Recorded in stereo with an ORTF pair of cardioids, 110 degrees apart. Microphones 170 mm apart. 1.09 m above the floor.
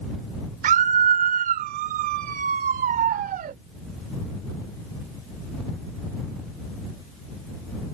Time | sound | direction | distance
0.6 | a scream | 55° right | ?